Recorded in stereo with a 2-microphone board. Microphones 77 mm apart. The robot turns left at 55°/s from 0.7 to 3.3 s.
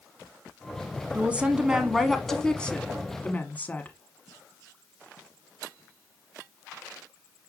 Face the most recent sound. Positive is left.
turn(degrees=25)  # may be behind; listen again after turning